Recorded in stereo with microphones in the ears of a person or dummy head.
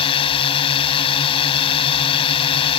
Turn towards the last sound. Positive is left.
turn(degrees=30)  # may be behind; listen again after turning